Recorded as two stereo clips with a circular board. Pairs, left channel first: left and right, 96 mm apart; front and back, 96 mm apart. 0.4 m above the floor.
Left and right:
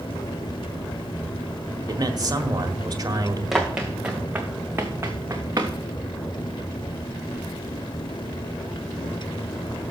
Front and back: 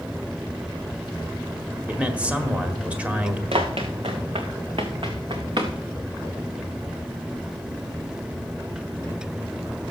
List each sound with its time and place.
1.9 s a man speaking: 110° right, 1.4 m
3.5 s running footsteps: 175° right, 1.9 m; by 5.7 s 145° right, 2 m